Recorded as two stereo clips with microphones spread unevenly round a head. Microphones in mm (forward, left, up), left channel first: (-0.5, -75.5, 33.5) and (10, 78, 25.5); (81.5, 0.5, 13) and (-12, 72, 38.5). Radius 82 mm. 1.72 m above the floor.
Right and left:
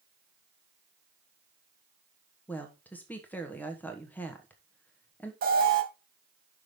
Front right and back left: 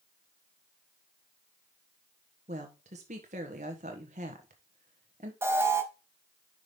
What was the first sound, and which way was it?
A woman speaking, 175° right.